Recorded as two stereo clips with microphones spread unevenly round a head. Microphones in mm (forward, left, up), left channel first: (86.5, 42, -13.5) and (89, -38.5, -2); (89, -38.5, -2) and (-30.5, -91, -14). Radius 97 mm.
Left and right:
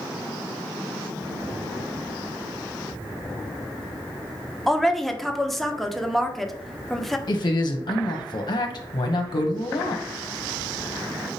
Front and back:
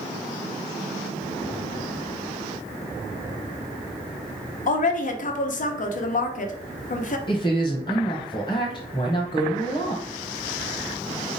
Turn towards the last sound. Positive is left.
turn(degrees=90)